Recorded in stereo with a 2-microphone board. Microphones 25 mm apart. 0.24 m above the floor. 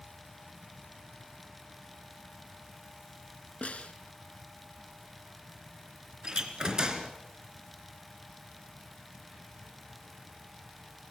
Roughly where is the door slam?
Right.